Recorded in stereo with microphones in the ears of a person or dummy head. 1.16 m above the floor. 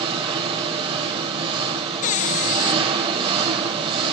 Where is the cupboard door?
40° left (ahead or behind), 0.5 m.